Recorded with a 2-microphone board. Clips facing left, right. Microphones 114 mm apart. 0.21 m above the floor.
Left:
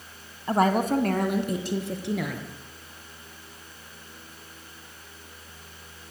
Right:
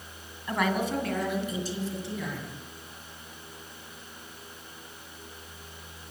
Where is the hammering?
I don't hear hammering.